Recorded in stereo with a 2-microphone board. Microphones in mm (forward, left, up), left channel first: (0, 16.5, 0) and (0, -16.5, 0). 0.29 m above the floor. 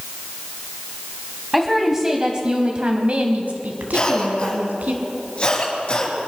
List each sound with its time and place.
1.5 s a woman speaking: 10° right (ahead or behind), 1.6 m; by 4.9 s 60° right (ahead or behind), 2.5 m
3.9 s a cough: 40° left (ahead or behind), 5.5 m